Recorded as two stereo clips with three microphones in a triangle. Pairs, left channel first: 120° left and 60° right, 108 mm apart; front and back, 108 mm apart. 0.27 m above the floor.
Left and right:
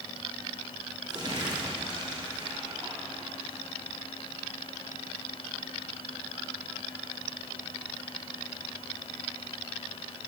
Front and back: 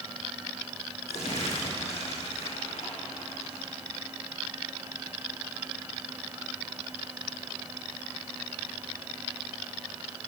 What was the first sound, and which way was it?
Crumpling, 10° right.